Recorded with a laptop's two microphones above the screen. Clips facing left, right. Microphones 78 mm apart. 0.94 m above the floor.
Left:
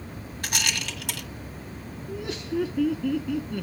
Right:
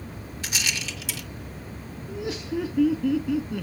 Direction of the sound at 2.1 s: 5° right (ahead or behind).